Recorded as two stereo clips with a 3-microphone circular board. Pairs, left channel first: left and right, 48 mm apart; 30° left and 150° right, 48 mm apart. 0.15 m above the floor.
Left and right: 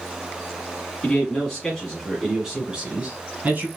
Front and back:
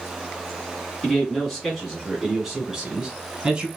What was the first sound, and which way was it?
A man speaking, 90° left.